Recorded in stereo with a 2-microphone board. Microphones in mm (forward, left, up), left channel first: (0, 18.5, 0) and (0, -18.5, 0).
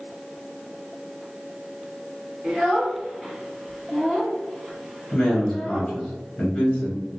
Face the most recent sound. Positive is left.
turn(degrees=25)  # may be behind; listen again after turning